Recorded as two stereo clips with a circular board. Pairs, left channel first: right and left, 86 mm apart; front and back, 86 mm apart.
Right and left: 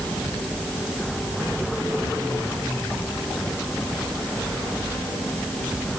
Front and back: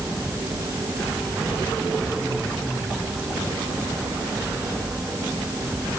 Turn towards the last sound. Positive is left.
No sound to turn to.